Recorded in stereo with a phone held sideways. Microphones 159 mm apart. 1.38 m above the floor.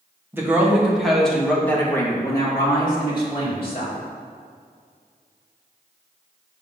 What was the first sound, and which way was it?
A woman speaking, 15° right (ahead or behind).